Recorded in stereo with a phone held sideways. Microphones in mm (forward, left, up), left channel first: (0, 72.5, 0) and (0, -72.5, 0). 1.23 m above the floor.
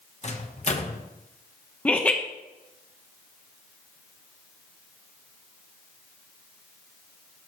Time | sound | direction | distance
0.2 | a microwave | 45° left (ahead or behind) | 1.1 m
1.9 | laughter | 10° left (ahead or behind) | 0.8 m